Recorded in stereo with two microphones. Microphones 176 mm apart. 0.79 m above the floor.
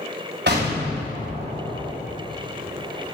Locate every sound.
0.5 s an explosion: 75° right (ahead or behind), 3 m